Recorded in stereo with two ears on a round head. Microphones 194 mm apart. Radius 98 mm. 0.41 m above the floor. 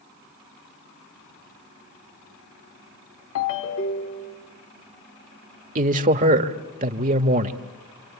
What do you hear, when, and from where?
3.4 s a ringtone: 75° left (ahead or behind), 1.9 m
5.8 s a man speaking: 40° right (ahead or behind), 1.1 m